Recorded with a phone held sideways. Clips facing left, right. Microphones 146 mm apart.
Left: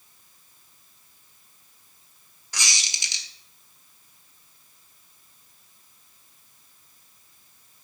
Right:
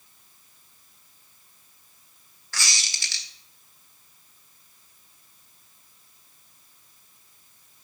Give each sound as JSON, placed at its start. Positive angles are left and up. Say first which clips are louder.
{"t": 2.5, "sound": "a squeak", "louder": "even", "side_deg": 20, "distance_m": 1.4}